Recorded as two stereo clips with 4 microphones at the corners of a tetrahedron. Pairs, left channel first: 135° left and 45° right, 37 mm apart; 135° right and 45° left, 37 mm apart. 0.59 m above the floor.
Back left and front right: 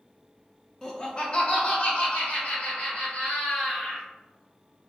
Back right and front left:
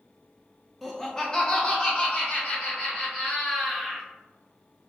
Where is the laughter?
145° left, 0.6 m; by 4.1 s straight behind, 1.9 m.